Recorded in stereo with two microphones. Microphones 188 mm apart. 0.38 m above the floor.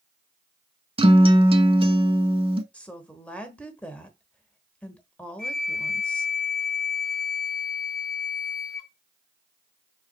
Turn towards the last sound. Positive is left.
turn(degrees=50)  # may be behind; listen again after turning